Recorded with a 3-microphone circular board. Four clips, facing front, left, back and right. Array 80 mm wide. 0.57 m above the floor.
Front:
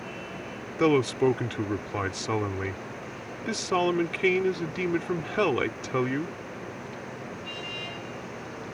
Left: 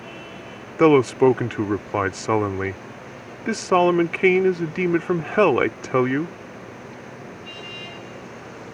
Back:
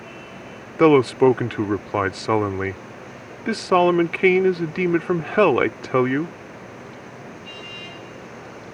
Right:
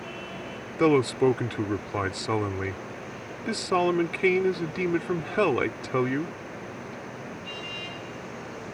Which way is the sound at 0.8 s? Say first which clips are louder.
Left 6 dB, back 8 dB; 145° left.